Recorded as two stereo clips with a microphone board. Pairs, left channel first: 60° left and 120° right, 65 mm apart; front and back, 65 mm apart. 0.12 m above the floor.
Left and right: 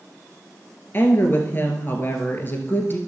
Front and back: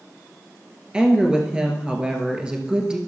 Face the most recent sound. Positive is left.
turn(degrees=105)